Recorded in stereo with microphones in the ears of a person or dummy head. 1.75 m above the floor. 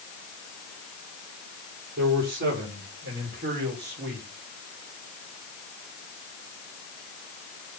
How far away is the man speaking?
About 6.5 m.